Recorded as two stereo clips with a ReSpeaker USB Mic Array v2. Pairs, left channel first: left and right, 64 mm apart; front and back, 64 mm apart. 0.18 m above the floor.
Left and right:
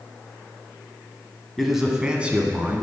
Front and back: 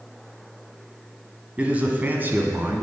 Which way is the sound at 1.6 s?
Straight behind.